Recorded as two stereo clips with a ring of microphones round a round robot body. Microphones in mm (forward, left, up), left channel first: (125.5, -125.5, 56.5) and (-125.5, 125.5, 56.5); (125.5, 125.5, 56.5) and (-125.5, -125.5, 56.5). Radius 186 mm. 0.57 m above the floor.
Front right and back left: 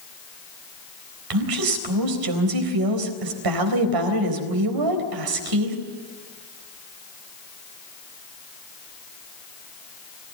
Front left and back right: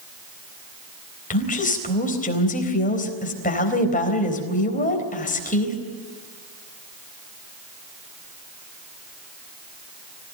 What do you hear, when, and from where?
1.3 s a woman speaking: 115° left, 4 m